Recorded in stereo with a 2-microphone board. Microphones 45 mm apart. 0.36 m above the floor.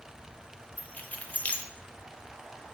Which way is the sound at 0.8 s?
35° left (ahead or behind).